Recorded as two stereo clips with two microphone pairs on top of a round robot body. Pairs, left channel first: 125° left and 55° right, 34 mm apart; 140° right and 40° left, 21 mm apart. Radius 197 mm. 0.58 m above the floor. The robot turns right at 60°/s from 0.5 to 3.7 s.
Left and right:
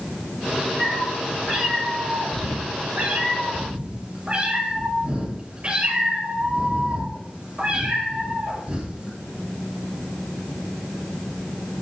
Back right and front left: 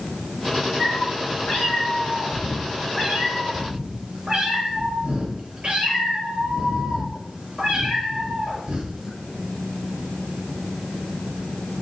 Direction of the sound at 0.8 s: 175° right.